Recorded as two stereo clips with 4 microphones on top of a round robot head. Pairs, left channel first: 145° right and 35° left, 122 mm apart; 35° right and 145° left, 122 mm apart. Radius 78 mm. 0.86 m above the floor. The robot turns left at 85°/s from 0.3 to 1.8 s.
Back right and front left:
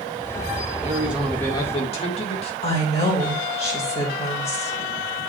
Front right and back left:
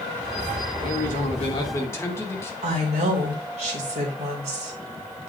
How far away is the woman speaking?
About 2.5 m.